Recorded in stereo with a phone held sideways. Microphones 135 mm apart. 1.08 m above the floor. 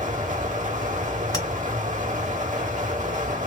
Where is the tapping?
30° left (ahead or behind), 2 m.